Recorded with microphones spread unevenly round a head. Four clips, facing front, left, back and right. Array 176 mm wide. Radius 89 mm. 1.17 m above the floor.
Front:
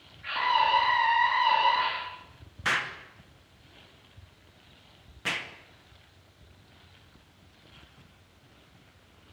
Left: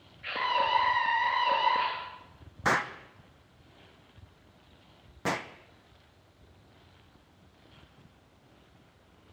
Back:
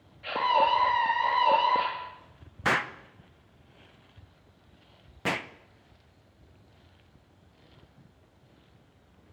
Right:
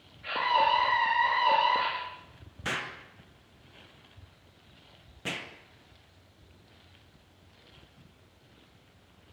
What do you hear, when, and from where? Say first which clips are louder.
0.2 s a scream: right 3 dB, back 1 dB; straight behind, 2.5 m
2.6 s an explosion: left 8 dB, back 3 dB; 120° left, 0.8 m